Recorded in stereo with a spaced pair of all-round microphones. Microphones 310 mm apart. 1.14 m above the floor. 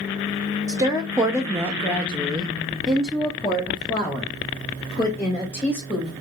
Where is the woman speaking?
10° right (ahead or behind), 0.8 m; by 6.1 s 5° left (ahead or behind), 2.5 m.